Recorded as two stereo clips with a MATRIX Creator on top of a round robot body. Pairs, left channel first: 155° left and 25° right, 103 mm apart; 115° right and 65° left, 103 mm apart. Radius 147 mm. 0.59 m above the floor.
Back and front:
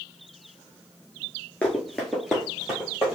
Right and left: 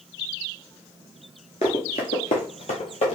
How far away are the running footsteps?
About 0.6 m.